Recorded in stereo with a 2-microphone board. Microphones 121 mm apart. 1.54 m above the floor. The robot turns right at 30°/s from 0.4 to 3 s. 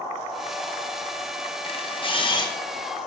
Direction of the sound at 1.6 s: 50° left (ahead or behind).